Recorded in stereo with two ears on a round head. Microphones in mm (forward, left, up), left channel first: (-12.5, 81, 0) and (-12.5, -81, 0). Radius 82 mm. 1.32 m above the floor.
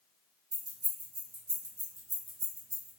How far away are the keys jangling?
About 0.9 m.